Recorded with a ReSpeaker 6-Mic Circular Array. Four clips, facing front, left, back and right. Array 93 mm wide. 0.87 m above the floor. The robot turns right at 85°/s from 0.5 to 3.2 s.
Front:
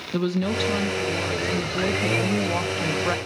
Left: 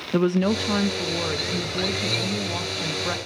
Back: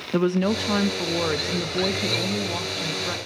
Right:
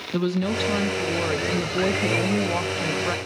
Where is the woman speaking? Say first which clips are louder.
Left 3 dB, back 3 dB; 135° left, 0.5 m; by 3.2 s straight ahead, 0.5 m.